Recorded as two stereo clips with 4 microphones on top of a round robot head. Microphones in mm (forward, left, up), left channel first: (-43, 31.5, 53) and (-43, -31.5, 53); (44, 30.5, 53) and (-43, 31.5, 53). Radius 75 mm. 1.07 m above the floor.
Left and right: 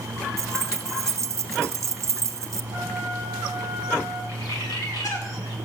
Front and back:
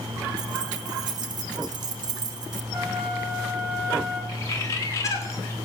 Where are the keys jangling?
130° right, 0.9 m.